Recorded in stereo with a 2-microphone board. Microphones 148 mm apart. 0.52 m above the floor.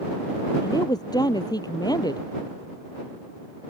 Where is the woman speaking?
25° left (ahead or behind).